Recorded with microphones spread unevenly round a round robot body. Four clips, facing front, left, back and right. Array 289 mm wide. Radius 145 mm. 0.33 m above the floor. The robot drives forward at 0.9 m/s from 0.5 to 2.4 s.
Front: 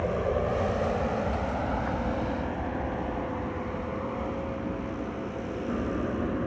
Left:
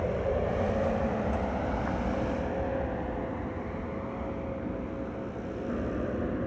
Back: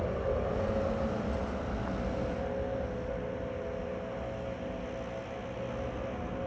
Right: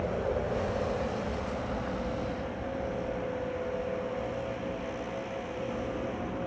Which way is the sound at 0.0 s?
20° left.